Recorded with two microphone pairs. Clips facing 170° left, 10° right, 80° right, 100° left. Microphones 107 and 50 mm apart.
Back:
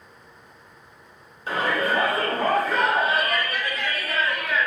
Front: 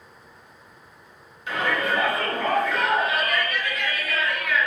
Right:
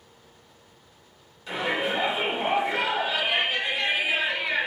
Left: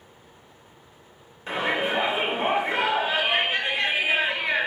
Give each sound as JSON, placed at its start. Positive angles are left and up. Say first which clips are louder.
{"t": 1.5, "sound": "a shout", "louder": "back 1 dB, left 2 dB", "azimuth_deg": 140, "distance_m": 1.1}